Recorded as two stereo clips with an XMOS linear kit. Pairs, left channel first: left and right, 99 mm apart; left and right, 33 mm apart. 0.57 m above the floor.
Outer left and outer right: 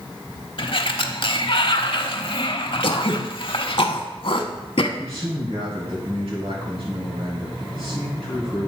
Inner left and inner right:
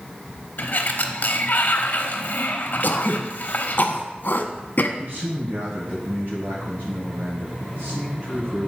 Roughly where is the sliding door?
Left.